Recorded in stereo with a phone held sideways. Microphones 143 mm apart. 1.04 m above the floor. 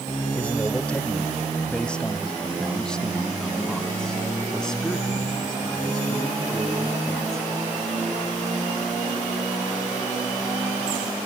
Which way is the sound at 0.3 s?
10° left (ahead or behind).